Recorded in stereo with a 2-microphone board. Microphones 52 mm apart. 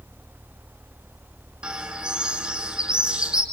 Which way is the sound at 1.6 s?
15° right (ahead or behind).